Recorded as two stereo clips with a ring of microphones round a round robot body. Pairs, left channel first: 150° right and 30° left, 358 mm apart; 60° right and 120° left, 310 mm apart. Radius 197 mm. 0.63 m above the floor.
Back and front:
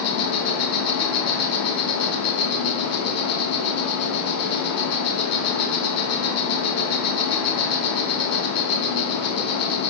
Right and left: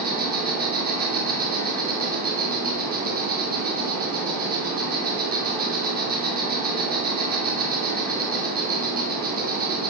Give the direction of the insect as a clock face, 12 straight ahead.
6 o'clock.